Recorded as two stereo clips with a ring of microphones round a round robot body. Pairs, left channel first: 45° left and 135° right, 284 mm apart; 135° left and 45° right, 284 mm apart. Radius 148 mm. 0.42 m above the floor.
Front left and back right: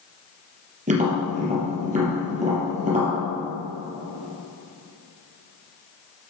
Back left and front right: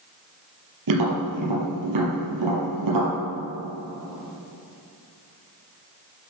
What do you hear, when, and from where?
0.9 s tapping: 70° right, 4.5 m